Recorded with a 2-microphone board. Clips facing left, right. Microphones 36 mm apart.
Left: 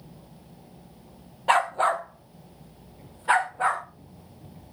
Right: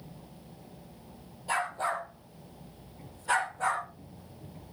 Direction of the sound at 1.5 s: 65° left (ahead or behind).